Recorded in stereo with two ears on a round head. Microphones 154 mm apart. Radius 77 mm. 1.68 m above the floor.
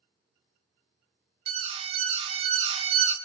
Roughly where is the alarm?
Right.